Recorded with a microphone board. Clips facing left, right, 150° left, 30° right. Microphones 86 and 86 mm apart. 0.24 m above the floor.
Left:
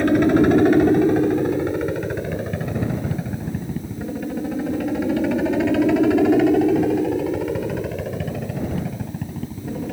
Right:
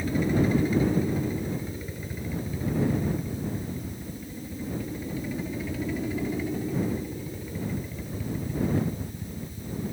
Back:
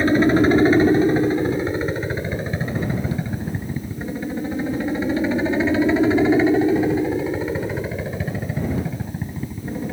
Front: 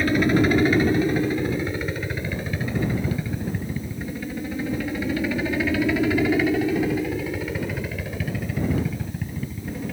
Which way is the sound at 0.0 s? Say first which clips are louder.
Left 10 dB, back 4 dB; 90° left.